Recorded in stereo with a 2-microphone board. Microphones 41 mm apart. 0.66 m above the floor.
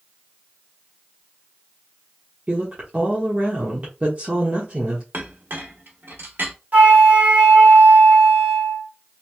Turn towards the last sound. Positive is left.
turn(degrees=-45)  # may be behind; listen again after turning